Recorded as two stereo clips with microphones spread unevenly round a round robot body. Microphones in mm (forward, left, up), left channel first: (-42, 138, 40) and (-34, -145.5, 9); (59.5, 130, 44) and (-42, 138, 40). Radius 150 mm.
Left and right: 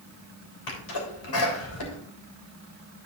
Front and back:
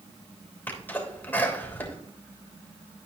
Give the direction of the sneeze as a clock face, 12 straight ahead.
10 o'clock.